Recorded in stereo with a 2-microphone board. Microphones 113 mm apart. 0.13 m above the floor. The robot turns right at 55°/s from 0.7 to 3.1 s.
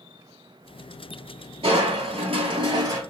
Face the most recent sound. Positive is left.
turn(degrees=-35)